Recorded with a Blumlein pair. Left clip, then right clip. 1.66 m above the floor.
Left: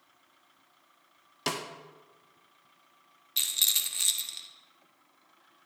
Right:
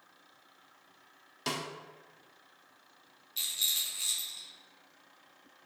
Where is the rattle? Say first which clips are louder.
Left 4 dB; 60° left, 0.9 m.